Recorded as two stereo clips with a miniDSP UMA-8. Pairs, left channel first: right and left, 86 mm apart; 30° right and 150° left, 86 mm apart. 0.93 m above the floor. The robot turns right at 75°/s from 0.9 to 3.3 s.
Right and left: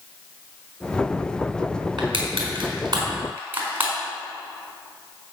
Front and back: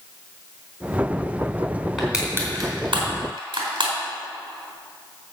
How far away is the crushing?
About 4 m.